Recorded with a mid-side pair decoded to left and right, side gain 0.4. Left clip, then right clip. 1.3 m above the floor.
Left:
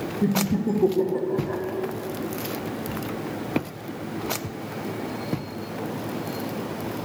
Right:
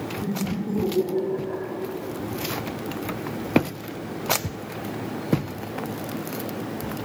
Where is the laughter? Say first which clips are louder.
Left 5 dB; 70° left, 1.5 m; by 1.6 s 35° left, 1.5 m.